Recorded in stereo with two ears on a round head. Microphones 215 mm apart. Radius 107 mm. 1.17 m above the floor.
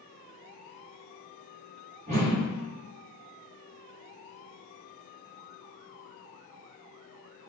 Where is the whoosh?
30° right (ahead or behind), 1.3 m.